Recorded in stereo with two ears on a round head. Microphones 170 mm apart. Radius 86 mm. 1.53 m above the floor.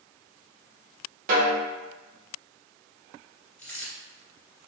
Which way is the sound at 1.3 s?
40° right (ahead or behind).